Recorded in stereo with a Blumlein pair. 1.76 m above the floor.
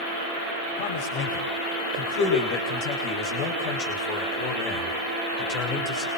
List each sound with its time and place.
0.8 s a man speaking: 50° left, 9 m; by 6.1 s 30° left, 8 m